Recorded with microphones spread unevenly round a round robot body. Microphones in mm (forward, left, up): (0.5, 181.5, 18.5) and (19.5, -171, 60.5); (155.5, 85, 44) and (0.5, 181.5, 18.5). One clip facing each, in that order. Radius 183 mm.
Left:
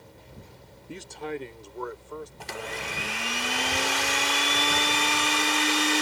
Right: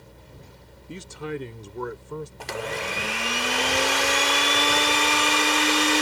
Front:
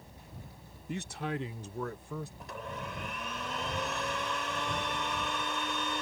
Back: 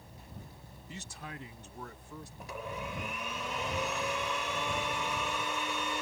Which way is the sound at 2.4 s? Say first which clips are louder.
Right 6 dB, back 1 dB; 125° right.